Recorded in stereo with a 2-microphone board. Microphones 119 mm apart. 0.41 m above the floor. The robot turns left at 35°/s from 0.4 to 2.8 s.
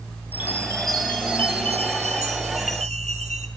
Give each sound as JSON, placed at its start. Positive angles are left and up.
{"t": 0.3, "sound": "a chime", "azimuth_deg": -15, "distance_m": 3.0}